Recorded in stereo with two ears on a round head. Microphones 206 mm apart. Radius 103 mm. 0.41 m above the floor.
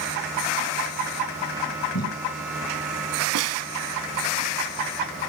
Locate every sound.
1.9 s tape being pulled: 70° left (ahead or behind), 7.5 m
3.4 s a snare drum: 75° right (ahead or behind), 1.7 m